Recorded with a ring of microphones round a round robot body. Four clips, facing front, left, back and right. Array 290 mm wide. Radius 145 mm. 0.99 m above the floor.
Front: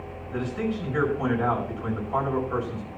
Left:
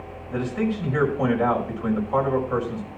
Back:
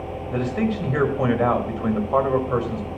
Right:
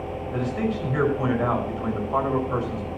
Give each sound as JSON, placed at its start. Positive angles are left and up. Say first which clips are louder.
{"t": 0.3, "sound": "a man speaking", "louder": "left 2 dB, back 5 dB", "azimuth_deg": 175, "distance_m": 5.5}